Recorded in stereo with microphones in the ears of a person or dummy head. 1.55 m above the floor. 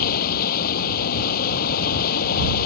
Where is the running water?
55° left (ahead or behind).